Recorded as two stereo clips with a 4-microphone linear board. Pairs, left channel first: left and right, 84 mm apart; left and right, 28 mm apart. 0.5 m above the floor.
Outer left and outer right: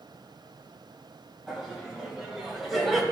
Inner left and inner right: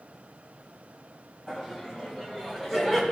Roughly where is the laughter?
Centre.